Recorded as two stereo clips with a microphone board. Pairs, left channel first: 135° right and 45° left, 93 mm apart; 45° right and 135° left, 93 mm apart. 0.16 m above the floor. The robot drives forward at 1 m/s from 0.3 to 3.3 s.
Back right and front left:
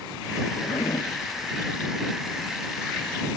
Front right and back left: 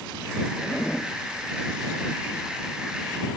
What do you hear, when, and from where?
0.6 s a zipper: 105° right, 1.5 m; by 1.1 s 125° right, 1.7 m